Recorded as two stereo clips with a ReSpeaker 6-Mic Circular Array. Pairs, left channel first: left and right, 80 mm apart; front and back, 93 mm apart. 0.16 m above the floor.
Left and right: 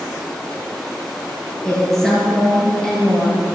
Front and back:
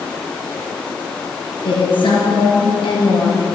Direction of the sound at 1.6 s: 5° left.